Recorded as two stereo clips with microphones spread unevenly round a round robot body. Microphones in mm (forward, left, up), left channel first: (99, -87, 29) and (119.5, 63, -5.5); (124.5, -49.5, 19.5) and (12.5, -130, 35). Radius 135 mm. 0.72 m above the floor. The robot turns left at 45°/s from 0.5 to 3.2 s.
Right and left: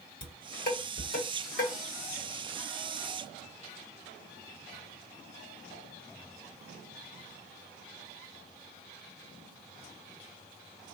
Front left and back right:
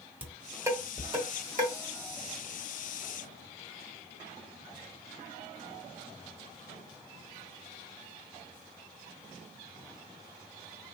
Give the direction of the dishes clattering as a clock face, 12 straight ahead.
2 o'clock.